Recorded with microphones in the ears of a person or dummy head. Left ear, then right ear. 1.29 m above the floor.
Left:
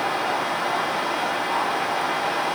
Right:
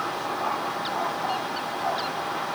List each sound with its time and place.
Only background noise.